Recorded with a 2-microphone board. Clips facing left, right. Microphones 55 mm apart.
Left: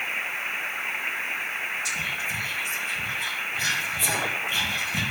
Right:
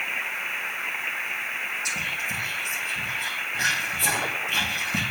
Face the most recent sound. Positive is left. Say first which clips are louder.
# even
turn(degrees=-60)  # may be behind; listen again after turning